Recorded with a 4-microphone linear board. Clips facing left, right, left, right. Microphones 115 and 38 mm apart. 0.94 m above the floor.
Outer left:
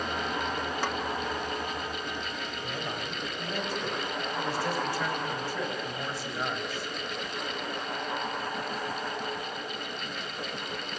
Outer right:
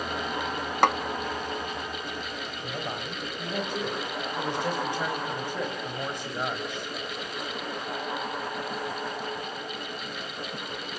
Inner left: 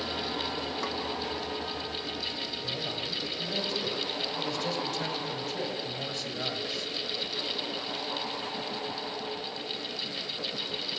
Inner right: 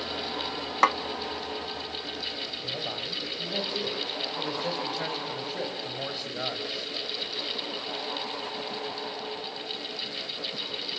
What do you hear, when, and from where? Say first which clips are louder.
0.8 s a snare drum: outer right 13 dB, inner right 17 dB; 70° right (ahead or behind), 0.7 m
2.6 s a man speaking: outer right 2 dB, inner right 1 dB; 20° right (ahead or behind), 5.5 m